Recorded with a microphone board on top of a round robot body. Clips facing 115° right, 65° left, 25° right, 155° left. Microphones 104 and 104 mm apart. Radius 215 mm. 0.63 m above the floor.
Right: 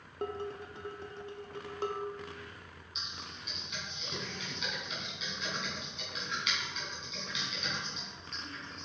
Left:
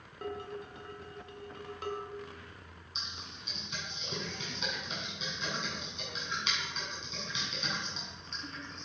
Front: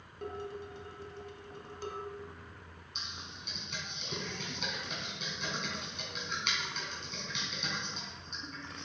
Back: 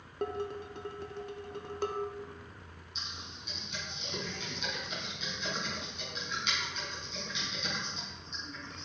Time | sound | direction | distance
0.2 | dishes clattering | 170° right | 0.7 m
3.0 | typing on a keyboard | 10° left | 2.5 m